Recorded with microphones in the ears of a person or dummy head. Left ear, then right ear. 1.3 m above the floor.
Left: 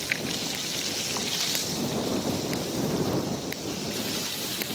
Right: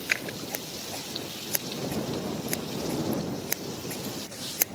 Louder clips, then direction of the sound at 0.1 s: Right 1 dB; 40° right (ahead or behind).